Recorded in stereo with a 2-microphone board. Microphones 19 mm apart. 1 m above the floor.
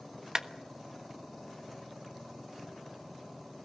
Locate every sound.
0.3 s a clap: 40° right (ahead or behind), 1.2 m